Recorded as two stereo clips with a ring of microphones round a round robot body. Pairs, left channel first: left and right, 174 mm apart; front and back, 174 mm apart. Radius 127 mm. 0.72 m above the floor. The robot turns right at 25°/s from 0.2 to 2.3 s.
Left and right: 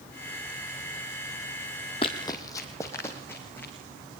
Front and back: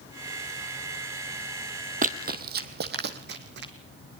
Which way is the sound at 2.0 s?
150° left.